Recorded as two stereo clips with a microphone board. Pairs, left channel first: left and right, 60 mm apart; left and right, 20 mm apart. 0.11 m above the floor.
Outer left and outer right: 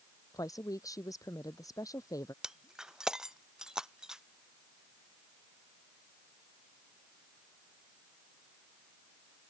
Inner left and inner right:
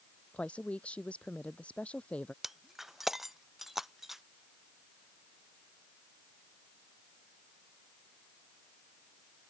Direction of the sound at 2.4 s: 10° right (ahead or behind).